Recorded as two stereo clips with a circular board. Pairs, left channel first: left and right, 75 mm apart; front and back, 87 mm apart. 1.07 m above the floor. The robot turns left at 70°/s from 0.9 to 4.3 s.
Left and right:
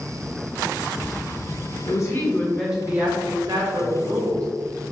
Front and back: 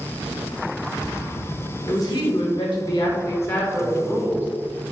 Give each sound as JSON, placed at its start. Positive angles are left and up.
{"t": 1.9, "sound": "a woman speaking", "azimuth_deg": 55, "distance_m": 1.1}